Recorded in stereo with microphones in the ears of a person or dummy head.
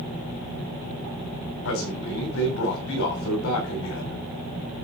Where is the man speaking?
60° left (ahead or behind), 3 m.